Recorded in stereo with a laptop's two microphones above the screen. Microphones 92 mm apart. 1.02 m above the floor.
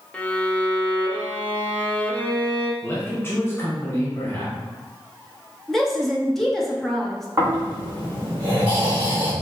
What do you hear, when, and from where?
0.1 s a violin: 15° left (ahead or behind), 0.7 m
2.8 s a man speaking: 25° left (ahead or behind), 0.9 m
5.7 s a woman speaking: centre (ahead or behind), 1.0 m
7.4 s snoring: 30° right (ahead or behind), 1.9 m